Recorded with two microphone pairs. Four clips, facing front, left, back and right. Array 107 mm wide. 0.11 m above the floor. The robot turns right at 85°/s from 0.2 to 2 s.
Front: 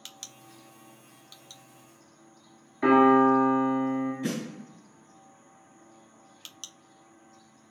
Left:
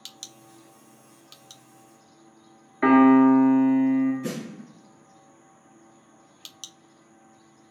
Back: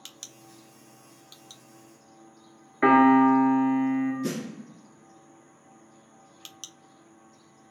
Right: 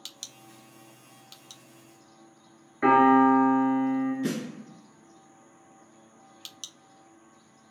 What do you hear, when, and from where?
2.8 s a piano: 165° left, 1.0 m
4.2 s a snare drum: 25° right, 1.7 m